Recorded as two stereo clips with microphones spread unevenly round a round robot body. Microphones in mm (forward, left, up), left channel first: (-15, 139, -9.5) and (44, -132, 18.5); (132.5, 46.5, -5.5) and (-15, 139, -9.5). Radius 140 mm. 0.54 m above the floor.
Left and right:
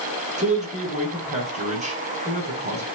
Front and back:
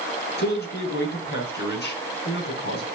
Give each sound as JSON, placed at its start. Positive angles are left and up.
{"t": 0.4, "sound": "a man speaking", "azimuth_deg": -10, "distance_m": 7.5}